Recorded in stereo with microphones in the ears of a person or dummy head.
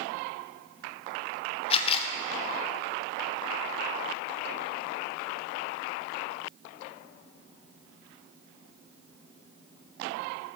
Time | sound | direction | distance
1.7 | a camera shutter | 30° left (ahead or behind) | 0.7 m